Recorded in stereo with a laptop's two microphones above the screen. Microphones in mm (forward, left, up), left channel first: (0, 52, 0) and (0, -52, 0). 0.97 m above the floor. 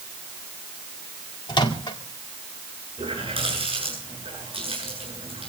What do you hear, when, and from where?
1.5 s a microwave: 45° left (ahead or behind), 1.9 m
3.0 s a running tap: 60° right (ahead or behind), 10 m